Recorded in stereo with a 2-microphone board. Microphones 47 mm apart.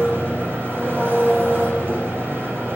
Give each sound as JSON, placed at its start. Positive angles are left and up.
{"t": 0.0, "sound": "an engine running", "side_deg": -45, "distance_m": 9.5}